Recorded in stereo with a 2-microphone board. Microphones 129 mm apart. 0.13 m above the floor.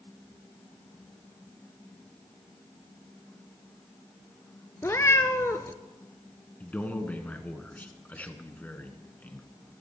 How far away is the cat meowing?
About 0.8 m.